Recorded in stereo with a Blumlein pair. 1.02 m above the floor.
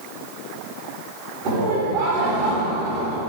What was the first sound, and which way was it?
Laughter, 30° right.